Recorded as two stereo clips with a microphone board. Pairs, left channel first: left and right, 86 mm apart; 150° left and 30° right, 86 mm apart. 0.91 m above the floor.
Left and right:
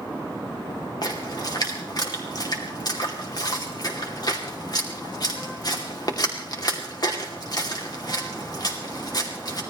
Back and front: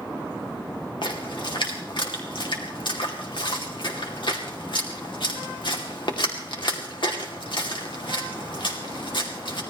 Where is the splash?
130° left, 2.5 m.